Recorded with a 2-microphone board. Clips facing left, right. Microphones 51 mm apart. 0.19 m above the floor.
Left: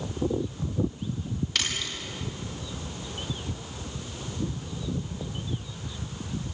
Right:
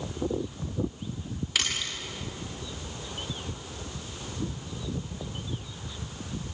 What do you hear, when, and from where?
1.6 s a splash: 5° right (ahead or behind), 8 m